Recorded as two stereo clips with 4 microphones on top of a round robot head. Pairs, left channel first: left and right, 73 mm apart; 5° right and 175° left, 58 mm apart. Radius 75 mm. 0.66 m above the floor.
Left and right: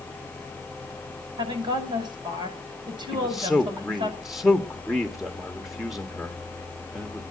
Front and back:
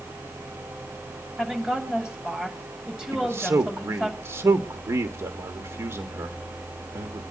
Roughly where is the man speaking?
Behind.